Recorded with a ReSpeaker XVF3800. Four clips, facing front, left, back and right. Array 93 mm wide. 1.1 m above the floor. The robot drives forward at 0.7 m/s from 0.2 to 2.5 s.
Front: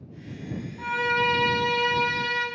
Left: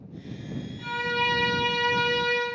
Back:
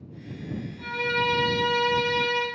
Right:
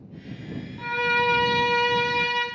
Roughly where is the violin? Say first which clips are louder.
Right 4 dB, front 3 dB; ahead right.